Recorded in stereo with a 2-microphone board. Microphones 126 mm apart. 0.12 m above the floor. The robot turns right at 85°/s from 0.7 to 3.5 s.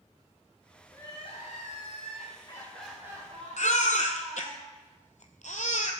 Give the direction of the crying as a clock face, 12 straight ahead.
12 o'clock.